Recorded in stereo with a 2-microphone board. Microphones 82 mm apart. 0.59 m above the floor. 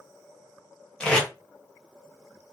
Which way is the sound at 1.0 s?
15° left (ahead or behind).